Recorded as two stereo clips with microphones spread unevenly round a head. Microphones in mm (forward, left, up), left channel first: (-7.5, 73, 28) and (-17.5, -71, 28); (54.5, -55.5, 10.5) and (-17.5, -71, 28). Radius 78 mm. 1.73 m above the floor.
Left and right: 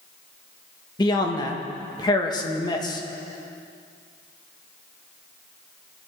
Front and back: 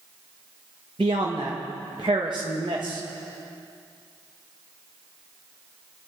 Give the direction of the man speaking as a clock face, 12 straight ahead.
7 o'clock.